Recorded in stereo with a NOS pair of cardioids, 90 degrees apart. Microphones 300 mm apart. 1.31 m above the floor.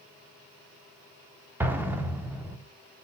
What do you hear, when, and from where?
1.6 s an explosion: 5° right, 0.6 m